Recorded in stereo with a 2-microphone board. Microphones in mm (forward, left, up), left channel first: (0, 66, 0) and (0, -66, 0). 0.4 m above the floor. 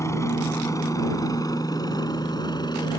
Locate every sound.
0.0 s a helicopter: 20° left (ahead or behind); by 3.0 s 30° left (ahead or behind)